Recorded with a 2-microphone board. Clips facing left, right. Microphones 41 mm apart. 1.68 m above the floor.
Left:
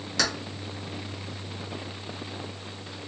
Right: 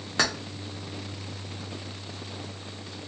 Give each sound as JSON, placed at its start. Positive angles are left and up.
{"t": 0.2, "sound": "keys jangling", "side_deg": -30, "distance_m": 0.8}